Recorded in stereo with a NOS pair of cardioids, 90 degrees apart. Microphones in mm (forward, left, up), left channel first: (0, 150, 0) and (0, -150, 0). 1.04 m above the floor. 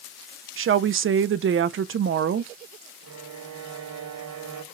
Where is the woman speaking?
45° right, 0.6 m.